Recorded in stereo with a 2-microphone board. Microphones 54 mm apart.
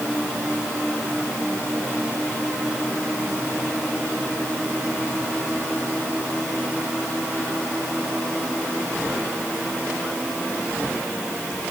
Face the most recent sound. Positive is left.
No sound to turn to.